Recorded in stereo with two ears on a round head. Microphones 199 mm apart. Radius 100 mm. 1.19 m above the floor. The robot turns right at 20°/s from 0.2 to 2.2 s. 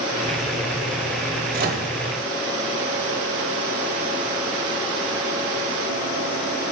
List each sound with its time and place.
1.5 s a microwave: 45° right (ahead or behind), 0.9 m; by 1.9 s 55° right (ahead or behind), 0.9 m